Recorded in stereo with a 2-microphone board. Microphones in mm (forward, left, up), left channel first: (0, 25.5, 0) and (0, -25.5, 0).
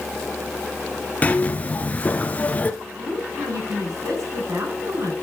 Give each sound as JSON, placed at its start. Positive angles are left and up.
{"t": 1.2, "sound": "a zipper", "side_deg": 25, "distance_m": 1.1}
{"t": 2.8, "sound": "a woman speaking", "side_deg": -70, "distance_m": 6.5}